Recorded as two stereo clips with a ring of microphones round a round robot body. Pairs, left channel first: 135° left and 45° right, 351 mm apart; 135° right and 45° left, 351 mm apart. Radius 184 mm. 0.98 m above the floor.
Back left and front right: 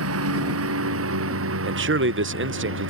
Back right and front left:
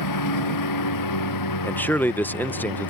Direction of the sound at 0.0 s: 95° right.